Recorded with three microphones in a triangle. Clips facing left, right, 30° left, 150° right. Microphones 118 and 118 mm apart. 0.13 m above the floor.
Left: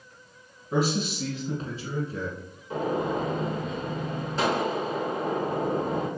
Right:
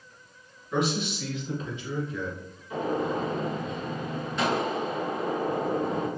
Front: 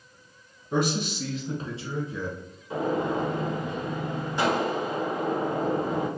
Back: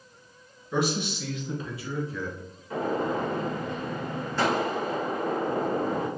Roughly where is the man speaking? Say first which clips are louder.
Left 2 dB, front 1 dB; ahead left.